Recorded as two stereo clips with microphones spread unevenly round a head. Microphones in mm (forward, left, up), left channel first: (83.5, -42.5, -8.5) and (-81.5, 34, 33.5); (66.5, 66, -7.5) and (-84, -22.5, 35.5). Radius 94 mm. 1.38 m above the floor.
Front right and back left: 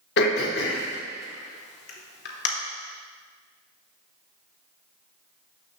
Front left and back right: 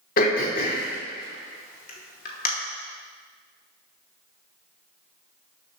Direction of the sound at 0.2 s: 10° right.